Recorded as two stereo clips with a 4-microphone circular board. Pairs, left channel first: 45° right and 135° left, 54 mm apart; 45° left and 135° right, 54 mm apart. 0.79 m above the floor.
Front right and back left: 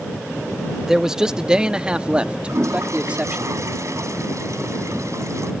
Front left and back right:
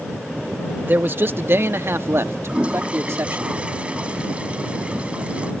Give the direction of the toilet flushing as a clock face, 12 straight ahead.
7 o'clock.